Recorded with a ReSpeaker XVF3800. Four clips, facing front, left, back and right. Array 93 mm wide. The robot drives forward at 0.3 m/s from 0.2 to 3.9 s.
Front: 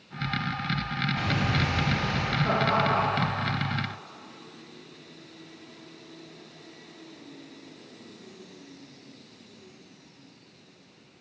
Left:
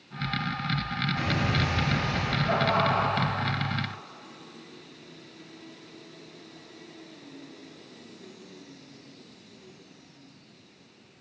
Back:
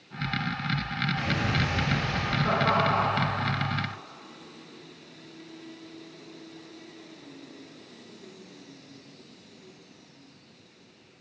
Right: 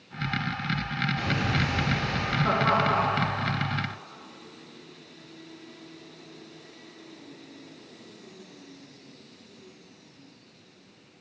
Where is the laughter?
100° right, 4.5 m; by 3.3 s 105° right, 4.5 m.